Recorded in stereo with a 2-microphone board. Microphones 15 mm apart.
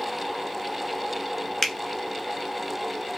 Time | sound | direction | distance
1.6 | a finger snap | 20° left (ahead or behind) | 0.8 m